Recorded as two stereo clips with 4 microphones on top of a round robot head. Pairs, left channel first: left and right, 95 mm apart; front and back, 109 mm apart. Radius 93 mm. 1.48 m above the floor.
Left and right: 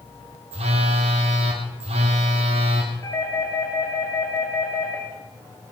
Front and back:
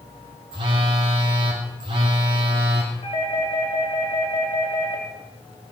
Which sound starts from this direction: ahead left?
A doorbell, at 3.0 s.